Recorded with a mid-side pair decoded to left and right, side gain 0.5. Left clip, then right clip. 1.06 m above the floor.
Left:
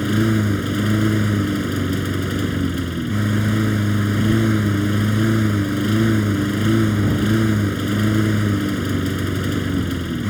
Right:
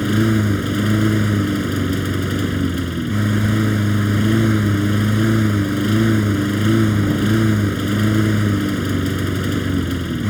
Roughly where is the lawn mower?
Ahead.